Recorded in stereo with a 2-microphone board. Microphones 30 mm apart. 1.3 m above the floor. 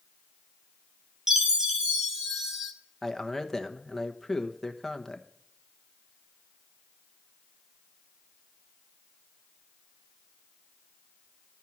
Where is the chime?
15° right (ahead or behind), 1.5 m.